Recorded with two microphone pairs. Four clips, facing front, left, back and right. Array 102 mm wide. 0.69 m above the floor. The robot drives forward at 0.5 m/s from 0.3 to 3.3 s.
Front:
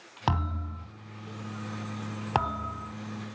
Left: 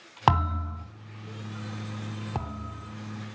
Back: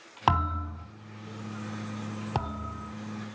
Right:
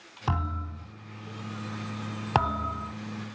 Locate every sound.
0.3 s a thud: 105° left, 3 m; by 0.8 s 110° left, 3 m
2.4 s a thud: 70° right, 0.6 m; by 3.0 s 105° right, 0.5 m